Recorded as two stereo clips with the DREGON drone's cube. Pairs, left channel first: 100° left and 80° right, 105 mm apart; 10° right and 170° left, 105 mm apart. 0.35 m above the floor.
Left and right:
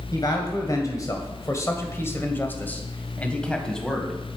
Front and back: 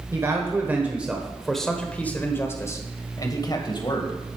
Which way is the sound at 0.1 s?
125° left.